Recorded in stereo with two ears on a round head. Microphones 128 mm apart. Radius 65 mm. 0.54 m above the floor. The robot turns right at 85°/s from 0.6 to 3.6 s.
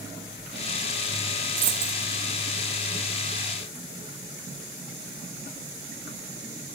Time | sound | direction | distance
1.6 | a dropped coin | 75° right (ahead or behind) | 3 m